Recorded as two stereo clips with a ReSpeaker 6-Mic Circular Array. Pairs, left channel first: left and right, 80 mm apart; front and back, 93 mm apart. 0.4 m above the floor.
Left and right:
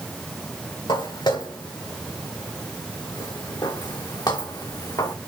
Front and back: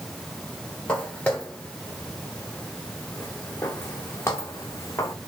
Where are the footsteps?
75° left, 4 m; by 5.2 s 55° left, 2.0 m.